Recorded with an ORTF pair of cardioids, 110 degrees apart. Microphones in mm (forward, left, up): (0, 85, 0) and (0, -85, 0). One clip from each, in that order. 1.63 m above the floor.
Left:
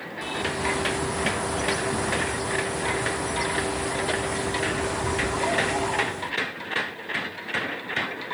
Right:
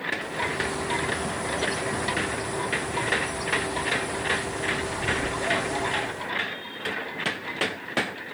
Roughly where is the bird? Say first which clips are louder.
Left 1 dB; ahead.